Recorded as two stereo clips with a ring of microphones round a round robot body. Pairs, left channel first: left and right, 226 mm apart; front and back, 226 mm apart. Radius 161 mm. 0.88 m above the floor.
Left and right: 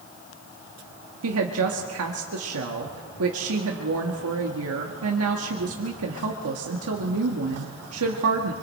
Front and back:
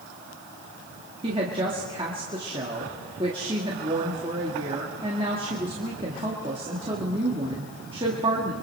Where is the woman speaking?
105° right, 1.6 m.